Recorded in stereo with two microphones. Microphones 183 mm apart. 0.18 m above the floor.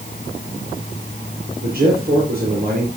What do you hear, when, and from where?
1.6 s a man speaking: 45° right (ahead or behind), 5 m